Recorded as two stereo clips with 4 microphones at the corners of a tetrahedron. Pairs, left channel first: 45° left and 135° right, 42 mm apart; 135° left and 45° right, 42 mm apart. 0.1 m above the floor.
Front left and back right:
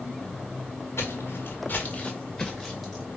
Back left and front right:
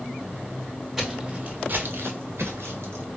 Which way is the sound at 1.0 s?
40° left.